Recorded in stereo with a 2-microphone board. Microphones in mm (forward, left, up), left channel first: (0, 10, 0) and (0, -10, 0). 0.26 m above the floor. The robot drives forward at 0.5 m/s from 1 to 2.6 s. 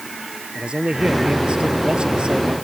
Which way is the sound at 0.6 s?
70° right (ahead or behind).